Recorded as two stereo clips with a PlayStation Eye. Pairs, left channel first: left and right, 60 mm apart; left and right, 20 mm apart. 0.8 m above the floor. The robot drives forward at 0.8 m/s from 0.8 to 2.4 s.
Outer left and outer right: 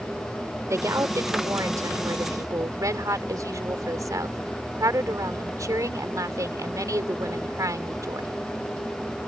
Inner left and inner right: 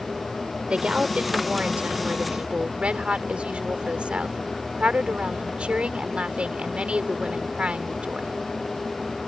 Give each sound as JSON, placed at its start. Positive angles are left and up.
{"t": 0.7, "sound": "a woman speaking", "side_deg": -60}